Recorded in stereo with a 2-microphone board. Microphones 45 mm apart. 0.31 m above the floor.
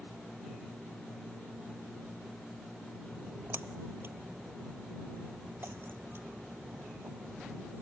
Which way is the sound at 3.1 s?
55° right (ahead or behind).